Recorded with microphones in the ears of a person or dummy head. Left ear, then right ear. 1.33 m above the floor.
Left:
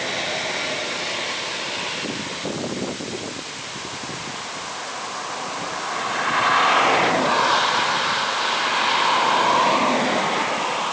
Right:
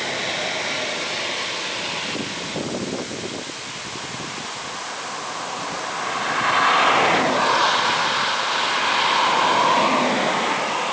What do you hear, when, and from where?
Only background noise.